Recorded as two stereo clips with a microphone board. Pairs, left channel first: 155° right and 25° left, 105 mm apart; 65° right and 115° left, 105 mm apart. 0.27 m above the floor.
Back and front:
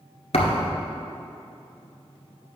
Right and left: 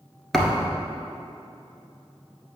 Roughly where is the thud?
Behind right.